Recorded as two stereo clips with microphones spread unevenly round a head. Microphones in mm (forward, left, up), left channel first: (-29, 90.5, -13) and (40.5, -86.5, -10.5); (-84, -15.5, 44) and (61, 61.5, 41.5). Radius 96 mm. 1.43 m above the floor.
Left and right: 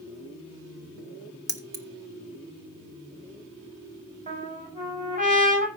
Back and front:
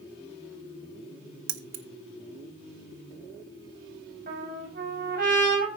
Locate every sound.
1.5 s keys jangling: straight ahead, 1.2 m
4.3 s a trumpet: 15° right, 5.5 m